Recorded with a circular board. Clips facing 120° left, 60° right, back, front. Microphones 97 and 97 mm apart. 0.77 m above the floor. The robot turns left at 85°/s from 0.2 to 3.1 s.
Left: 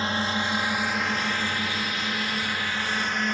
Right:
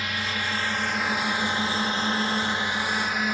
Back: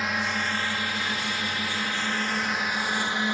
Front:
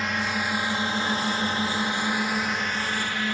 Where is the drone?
95° left; by 3.3 s 135° right.